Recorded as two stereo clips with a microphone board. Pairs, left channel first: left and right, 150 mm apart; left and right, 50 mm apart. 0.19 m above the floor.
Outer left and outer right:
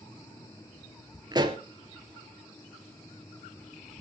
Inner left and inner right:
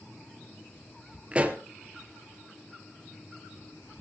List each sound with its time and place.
1.3 s a pop: 25° right (ahead or behind), 1.9 m